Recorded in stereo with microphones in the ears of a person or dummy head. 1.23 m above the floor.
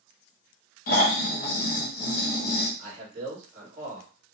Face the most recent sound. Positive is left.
turn(degrees=-40)  # may be behind; listen again after turning